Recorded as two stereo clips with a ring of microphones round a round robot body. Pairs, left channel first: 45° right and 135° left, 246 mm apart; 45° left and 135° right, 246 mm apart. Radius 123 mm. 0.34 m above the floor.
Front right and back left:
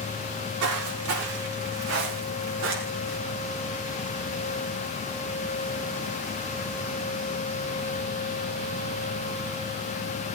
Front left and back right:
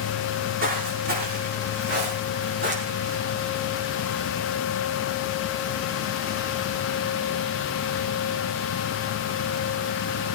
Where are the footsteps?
165° left, 7 m; by 3.2 s straight behind, 7 m.